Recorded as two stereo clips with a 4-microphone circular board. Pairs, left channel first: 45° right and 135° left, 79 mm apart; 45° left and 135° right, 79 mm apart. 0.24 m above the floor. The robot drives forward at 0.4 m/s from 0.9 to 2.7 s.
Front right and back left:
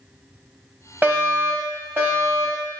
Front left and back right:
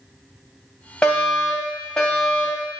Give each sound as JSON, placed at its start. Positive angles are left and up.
{"t": 1.0, "sound": "a fire alarm", "azimuth_deg": 105, "distance_m": 2.5}